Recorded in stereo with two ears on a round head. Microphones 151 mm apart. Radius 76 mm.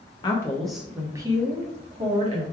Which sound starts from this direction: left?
A woman speaking, at 0.2 s.